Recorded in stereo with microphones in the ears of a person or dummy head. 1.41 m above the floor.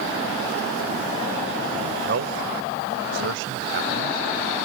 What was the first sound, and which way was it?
A man speaking, 60° right (ahead or behind).